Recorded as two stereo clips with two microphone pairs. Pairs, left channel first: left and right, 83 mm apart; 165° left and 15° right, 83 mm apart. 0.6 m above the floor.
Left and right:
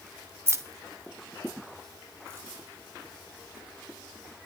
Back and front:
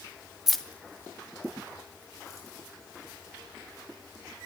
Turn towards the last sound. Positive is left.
turn(degrees=-150)